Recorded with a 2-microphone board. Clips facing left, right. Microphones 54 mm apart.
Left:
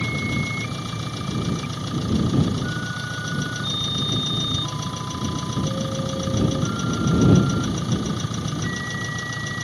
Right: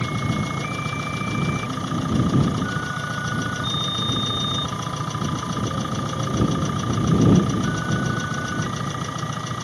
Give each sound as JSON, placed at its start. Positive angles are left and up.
{"t": 0.0, "sound": "an engine running", "side_deg": -20}